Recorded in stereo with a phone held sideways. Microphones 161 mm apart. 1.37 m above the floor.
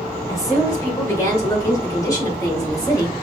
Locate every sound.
0.3 s a woman speaking: 20° left (ahead or behind), 3.5 m; by 3.1 s 25° left (ahead or behind), 1.9 m